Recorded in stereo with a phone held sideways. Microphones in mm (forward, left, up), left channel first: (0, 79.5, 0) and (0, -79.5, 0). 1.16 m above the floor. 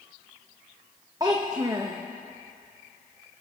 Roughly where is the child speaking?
Right.